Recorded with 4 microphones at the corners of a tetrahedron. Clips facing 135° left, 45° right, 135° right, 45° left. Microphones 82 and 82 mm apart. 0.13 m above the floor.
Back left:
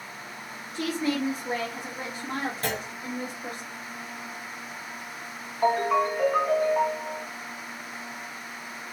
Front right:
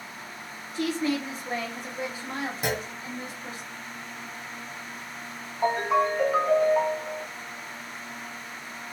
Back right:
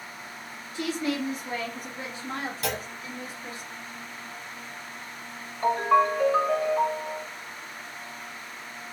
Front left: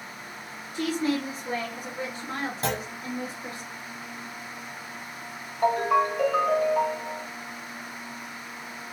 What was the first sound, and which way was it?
A woman speaking, 45° left.